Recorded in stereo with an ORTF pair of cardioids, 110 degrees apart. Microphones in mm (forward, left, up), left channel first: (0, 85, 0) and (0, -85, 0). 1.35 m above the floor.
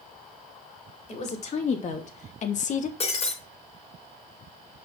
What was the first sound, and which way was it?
A woman speaking, 40° left.